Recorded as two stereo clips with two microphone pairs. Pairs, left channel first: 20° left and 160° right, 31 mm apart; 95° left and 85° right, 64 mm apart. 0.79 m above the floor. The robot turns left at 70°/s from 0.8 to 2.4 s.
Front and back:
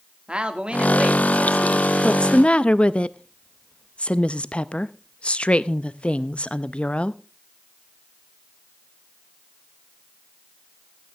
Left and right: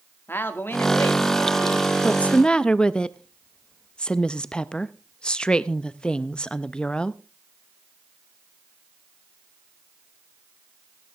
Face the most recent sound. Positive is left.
turn(degrees=35)